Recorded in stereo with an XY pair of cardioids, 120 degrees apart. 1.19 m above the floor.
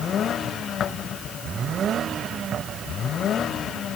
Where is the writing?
No writing in this recording.